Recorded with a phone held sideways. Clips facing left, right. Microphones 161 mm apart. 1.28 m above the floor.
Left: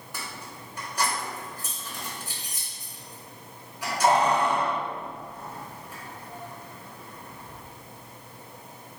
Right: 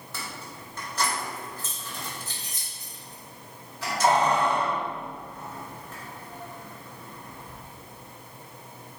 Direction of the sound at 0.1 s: 15° left (ahead or behind).